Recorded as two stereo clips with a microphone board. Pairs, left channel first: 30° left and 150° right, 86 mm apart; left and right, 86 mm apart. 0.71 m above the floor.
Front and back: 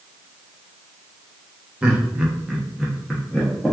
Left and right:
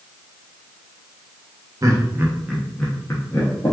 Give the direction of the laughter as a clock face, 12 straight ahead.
3 o'clock.